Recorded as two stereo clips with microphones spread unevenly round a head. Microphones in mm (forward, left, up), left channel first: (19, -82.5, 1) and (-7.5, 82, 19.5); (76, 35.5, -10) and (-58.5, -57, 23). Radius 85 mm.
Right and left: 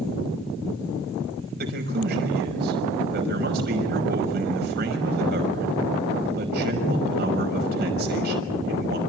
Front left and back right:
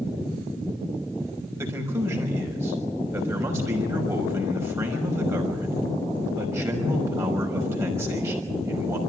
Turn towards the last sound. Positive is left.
turn(degrees=135)